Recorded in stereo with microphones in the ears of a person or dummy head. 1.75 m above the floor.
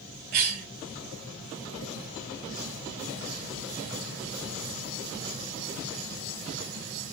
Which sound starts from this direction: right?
A cough, at 0.3 s.